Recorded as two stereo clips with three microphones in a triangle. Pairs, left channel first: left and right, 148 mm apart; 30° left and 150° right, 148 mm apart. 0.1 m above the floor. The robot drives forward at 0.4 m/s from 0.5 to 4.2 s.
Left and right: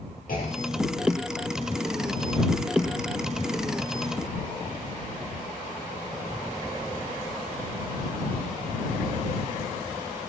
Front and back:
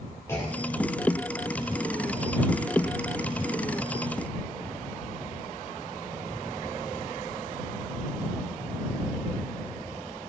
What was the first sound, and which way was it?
A clunk, 100° left.